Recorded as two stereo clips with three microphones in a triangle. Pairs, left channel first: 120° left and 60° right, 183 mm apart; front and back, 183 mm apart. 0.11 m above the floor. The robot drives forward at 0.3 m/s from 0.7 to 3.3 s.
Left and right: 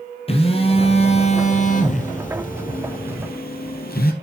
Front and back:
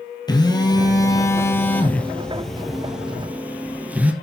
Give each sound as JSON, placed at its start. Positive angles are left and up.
{"t": 0.3, "sound": "a phone buzzing", "azimuth_deg": 65, "distance_m": 1.6}